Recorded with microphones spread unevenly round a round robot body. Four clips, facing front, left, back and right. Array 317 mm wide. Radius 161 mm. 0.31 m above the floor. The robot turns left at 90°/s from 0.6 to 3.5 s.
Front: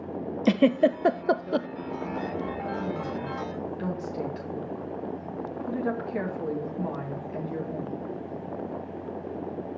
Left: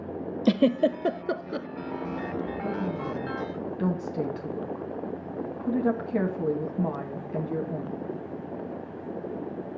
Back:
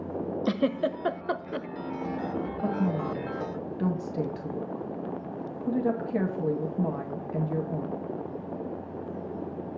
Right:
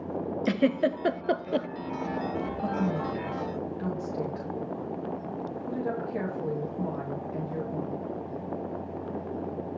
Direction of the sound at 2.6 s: 150° right.